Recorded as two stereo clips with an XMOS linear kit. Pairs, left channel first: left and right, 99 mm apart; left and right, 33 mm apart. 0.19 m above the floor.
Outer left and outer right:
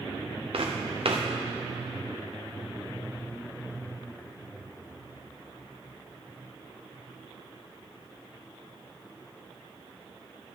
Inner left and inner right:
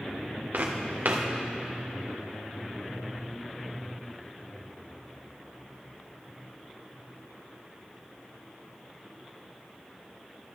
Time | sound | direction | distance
0.5 | footsteps | 70° right (ahead or behind) | 1.4 m